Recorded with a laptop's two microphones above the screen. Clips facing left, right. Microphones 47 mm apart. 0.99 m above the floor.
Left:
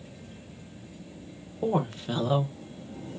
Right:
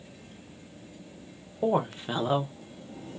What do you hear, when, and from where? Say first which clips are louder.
1.6 s a woman speaking: right 1 dB; 15° right (ahead or behind), 1.0 m; by 3.2 s 45° right (ahead or behind), 0.7 m